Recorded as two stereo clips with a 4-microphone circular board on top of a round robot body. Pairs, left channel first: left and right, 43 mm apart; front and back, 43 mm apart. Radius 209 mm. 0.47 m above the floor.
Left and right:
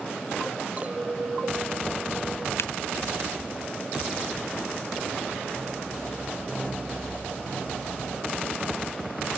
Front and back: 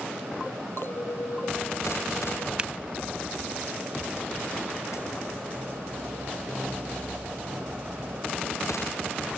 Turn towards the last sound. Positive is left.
turn(degrees=115)